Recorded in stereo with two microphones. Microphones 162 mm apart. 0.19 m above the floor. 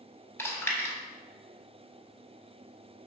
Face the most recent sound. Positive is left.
turn(degrees=15)  # may be behind; listen again after turning